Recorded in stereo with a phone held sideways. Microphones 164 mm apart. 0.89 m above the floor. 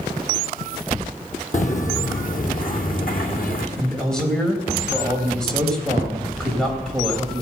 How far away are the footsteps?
About 2.0 m.